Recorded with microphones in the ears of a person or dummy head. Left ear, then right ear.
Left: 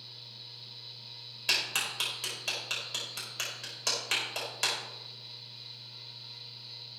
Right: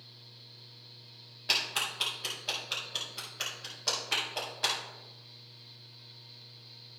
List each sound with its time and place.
0.0 s a fan: 40° left (ahead or behind), 1.4 m
1.5 s a clap: 65° left (ahead or behind), 5 m